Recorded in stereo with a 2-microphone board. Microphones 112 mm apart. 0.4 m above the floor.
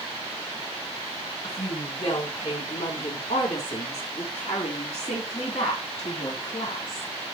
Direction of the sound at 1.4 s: 70° left (ahead or behind).